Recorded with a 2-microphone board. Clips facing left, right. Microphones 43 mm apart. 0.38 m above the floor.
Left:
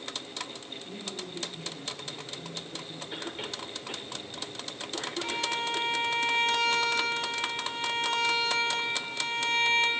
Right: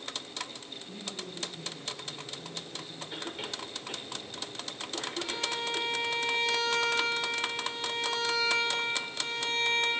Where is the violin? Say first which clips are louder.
Left 4 dB; 65° left (ahead or behind), 2.5 m.